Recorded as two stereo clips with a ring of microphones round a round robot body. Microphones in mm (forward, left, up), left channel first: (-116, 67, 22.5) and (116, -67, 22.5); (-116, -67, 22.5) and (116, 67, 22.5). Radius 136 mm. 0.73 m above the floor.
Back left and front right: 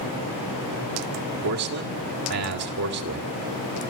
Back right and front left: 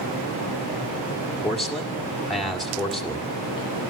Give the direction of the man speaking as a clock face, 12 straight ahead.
2 o'clock.